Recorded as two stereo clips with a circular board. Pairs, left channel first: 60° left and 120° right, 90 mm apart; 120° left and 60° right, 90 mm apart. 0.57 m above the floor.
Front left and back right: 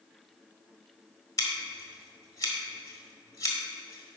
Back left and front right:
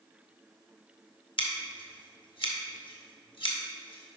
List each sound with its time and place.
1.4 s scissors: 110° left, 1.4 m